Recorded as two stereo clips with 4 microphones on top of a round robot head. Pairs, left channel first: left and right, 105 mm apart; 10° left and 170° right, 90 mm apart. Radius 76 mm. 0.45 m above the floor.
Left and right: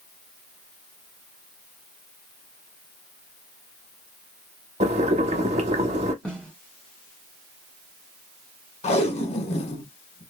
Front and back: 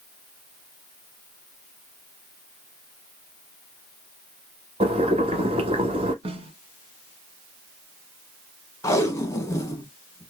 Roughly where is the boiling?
Behind right.